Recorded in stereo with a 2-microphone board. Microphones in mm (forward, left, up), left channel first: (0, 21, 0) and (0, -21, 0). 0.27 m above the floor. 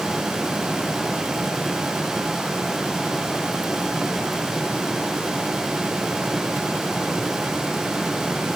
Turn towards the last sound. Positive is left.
No sound to turn to.